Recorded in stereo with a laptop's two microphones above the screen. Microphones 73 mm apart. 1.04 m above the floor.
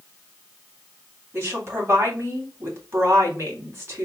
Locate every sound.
1.3 s a woman speaking: 35° right (ahead or behind), 3 m